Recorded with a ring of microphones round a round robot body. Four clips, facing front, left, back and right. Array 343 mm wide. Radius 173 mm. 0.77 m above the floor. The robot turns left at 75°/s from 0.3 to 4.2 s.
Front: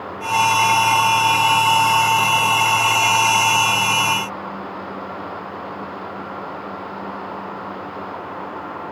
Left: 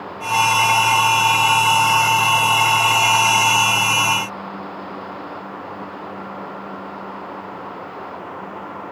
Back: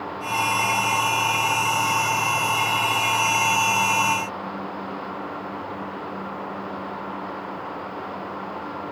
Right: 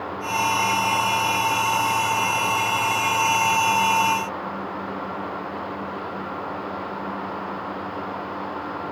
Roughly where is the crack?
No crack in this recording.